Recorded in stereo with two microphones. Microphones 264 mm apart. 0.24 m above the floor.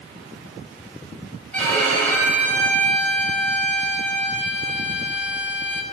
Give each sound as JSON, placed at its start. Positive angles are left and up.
{"t": 1.5, "sound": "a violin", "side_deg": 5, "distance_m": 1.4}